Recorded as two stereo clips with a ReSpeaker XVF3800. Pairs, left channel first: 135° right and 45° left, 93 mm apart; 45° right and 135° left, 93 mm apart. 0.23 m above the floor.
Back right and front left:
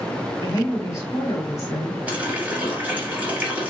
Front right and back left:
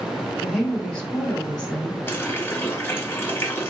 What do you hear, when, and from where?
0.4 s a woman speaking: 125° right, 1.3 m
2.1 s a running tap: 10° right, 0.8 m